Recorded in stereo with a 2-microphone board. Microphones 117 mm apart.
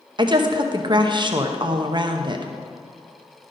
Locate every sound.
0.2 s a woman speaking: 40° right (ahead or behind), 0.8 m